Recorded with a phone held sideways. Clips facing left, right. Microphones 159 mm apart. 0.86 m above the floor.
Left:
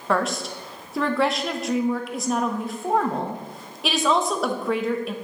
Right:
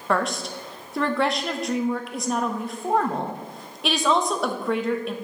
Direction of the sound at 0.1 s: Centre (ahead or behind).